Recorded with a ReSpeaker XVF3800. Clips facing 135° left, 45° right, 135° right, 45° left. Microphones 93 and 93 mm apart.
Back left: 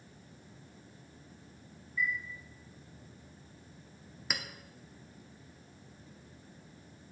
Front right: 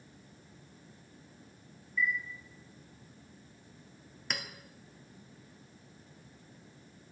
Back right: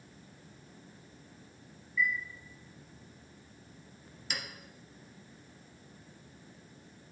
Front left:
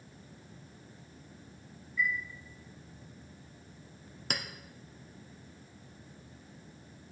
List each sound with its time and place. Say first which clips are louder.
2.0 s a chime: front right 2 dB, back right 1 dB; 85° left, 2.5 m
4.3 s a clink: even, front left 3 dB; 50° left, 0.7 m